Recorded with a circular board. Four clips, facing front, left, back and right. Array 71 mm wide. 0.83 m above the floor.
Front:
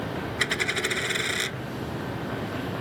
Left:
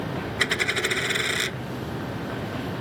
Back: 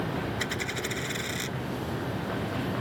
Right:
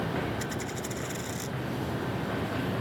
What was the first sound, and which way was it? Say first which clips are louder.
A dropped coin: left 9 dB, front 5 dB; 65° left.